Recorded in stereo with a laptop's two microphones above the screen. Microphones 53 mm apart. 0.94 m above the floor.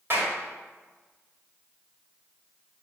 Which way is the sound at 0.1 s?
45° right (ahead or behind).